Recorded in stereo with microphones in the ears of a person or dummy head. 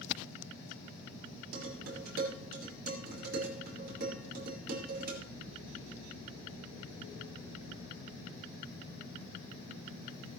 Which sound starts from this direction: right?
Dishes clattering, at 1.5 s.